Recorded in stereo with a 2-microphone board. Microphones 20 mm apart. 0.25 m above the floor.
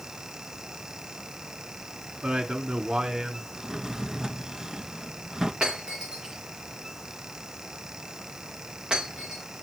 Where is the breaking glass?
55° right (ahead or behind), 5.5 m.